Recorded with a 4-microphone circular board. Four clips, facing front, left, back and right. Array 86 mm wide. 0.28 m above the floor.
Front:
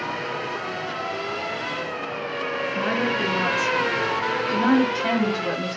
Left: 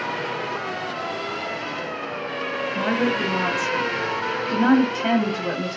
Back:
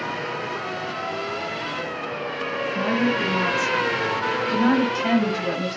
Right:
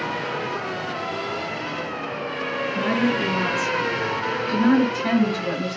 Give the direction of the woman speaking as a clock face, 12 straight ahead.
9 o'clock.